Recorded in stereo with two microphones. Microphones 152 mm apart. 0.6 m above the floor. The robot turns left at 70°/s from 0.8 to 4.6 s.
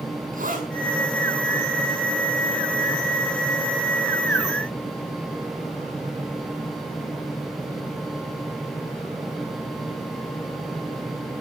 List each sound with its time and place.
0.3 s a zipper: 75° right (ahead or behind), 5.5 m